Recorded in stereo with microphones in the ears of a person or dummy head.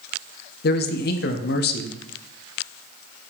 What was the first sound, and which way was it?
A man speaking, 55° left (ahead or behind).